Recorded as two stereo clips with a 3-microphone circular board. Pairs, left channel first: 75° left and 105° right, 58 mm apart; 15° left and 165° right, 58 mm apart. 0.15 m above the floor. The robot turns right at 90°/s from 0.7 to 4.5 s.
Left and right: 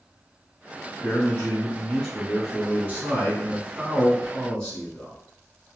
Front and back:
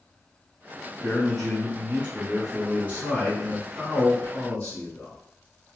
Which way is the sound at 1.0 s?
55° left.